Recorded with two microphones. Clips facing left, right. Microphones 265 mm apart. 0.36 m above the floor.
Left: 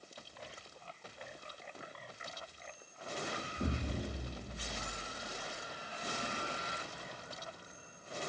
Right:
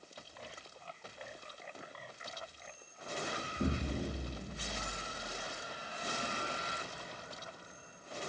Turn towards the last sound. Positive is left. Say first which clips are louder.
# right 3 dB
turn(degrees=-20)  # may be behind; listen again after turning